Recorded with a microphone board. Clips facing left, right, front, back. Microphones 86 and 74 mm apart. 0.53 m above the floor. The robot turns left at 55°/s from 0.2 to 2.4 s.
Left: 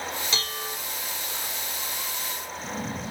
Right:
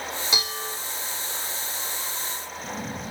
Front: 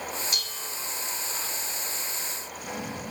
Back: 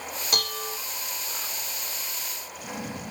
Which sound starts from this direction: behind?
Dishes clattering, at 0.3 s.